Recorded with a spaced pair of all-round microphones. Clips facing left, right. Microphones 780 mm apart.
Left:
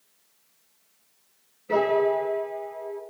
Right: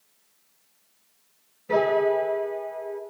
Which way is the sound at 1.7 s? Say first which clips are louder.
Even; 30° right (ahead or behind).